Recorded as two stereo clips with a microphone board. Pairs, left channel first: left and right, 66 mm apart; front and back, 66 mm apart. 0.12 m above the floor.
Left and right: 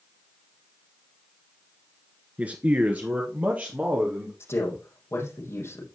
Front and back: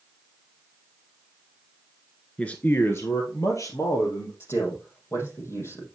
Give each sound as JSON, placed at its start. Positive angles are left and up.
{"t": 2.4, "sound": "a man speaking", "azimuth_deg": -55, "distance_m": 1.2}
{"t": 4.4, "sound": "a man speaking", "azimuth_deg": 45, "distance_m": 5.0}